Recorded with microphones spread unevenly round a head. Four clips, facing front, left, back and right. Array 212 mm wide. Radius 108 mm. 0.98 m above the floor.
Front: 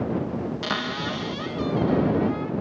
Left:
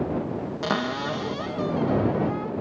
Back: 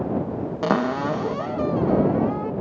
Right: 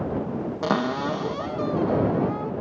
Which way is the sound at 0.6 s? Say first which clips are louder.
Right 3 dB, back 7 dB; 165° right.